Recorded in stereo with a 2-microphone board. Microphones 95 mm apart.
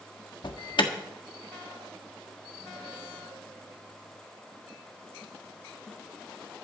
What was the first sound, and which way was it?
An alarm, 55° left (ahead or behind).